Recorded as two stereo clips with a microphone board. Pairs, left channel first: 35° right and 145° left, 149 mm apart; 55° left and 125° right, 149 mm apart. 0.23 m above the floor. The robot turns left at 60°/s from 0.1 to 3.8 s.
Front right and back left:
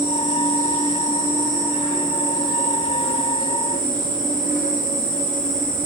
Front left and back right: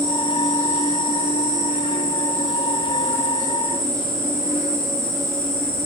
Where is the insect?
165° left, 6.5 m; by 5.9 s 55° right, 6.5 m.